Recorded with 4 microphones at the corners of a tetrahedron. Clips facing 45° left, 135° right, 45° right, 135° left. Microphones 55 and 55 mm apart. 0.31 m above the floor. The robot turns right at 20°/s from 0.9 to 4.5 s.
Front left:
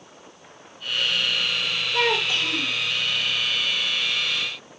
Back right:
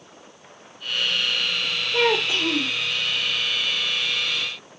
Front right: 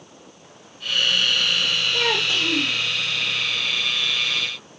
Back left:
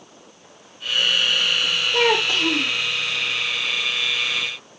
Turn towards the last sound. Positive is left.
turn(degrees=-155)